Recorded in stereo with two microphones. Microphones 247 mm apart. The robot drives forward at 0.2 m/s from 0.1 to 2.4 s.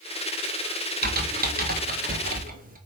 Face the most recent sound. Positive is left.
turn(degrees=-35)  # may be behind; listen again after turning